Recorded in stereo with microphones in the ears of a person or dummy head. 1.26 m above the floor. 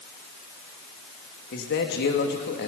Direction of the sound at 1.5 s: 50° left (ahead or behind).